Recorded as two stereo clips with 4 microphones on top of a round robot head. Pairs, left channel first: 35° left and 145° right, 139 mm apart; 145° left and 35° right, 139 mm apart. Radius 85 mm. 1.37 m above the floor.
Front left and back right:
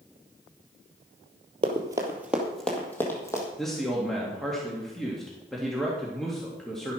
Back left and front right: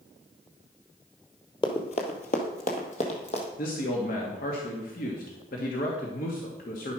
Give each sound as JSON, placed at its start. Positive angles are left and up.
{"t": 1.6, "sound": "running footsteps", "azimuth_deg": -175, "distance_m": 1.6}
{"t": 3.6, "sound": "a man speaking", "azimuth_deg": 120, "distance_m": 2.0}